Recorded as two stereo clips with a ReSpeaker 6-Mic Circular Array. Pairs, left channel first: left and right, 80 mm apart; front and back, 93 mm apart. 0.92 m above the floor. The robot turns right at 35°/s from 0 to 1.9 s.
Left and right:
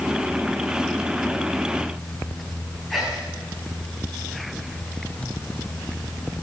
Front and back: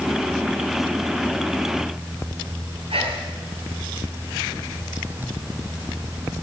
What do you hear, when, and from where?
2.9 s whispering: 175° left, 6.5 m